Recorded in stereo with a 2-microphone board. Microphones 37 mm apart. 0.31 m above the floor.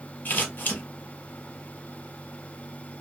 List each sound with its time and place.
0.2 s scissors: 55° left (ahead or behind), 1.7 m